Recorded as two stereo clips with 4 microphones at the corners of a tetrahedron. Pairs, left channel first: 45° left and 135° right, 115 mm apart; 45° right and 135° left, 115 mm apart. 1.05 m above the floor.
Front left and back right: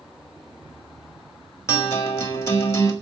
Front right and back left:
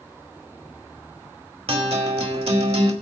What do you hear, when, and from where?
1.7 s a guitar: 110° left, 1.8 m